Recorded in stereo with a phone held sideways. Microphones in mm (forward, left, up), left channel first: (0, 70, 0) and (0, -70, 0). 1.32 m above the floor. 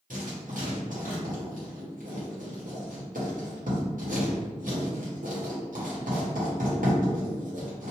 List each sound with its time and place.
0.1 s writing: 70° right (ahead or behind), 1.0 m